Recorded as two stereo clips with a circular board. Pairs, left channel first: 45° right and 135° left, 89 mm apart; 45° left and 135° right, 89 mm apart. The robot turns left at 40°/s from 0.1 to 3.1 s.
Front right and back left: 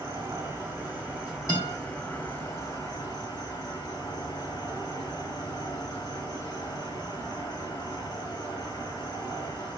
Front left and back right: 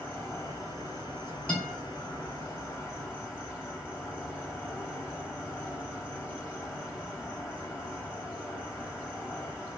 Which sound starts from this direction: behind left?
A guitar, at 1.5 s.